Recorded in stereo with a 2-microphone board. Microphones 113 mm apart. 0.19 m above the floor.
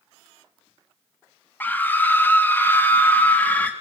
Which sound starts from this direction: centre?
A scream, at 1.6 s.